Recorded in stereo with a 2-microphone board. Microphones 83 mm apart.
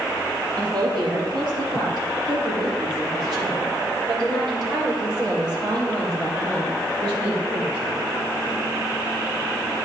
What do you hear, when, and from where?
0.6 s a woman speaking: 75° right (ahead or behind), 4.5 m; by 8.0 s 55° right (ahead or behind), 8 m